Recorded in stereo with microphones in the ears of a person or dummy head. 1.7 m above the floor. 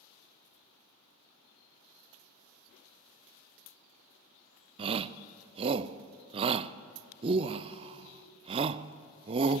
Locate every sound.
4.8 s a shout: 25° right (ahead or behind), 0.6 m